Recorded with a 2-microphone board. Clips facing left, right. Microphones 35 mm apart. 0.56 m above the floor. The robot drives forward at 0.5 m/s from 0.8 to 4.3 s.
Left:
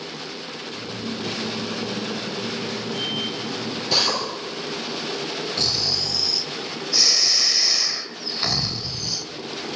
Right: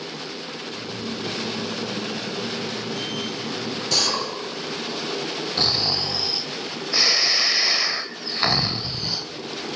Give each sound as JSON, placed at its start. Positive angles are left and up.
{"t": 3.9, "sound": "a drill", "side_deg": 15, "distance_m": 9.5}
{"t": 5.6, "sound": "snoring", "side_deg": -25, "distance_m": 0.8}